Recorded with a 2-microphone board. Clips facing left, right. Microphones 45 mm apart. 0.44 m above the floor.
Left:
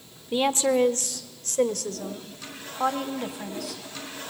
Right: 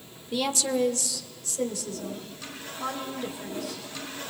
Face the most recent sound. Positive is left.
turn(degrees=70)  # may be behind; listen again after turning